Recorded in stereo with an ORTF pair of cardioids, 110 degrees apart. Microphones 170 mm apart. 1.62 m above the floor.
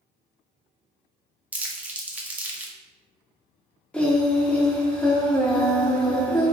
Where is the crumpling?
10° right, 0.6 m.